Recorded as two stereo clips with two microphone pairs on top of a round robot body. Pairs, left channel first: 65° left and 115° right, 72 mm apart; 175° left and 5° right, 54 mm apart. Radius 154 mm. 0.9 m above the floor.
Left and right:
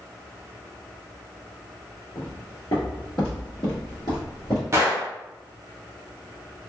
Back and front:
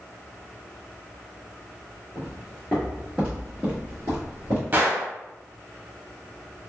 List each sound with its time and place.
2.1 s footsteps: 115° left, 1.2 m; by 4.6 s 15° left, 1.4 m
4.7 s a gunshot: 60° right, 0.9 m